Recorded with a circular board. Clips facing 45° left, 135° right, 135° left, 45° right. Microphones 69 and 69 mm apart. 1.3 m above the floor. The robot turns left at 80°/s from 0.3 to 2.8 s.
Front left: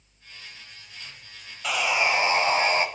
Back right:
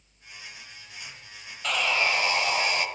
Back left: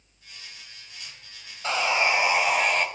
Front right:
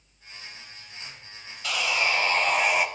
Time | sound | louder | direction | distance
1.6 | sawing | front left 2 dB, back left 3 dB | 125° left | 1.3 m